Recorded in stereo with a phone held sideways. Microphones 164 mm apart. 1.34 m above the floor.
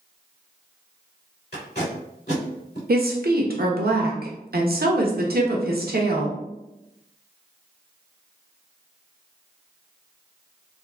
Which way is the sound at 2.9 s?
70° right (ahead or behind).